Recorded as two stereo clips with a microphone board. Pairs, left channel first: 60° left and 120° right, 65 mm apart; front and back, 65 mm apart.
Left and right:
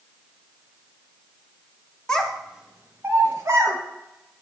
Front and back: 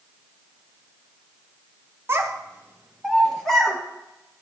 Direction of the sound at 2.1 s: 135° left.